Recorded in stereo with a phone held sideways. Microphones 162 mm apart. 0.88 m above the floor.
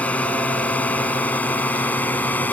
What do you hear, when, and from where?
0.0 s a drone: 10° left (ahead or behind)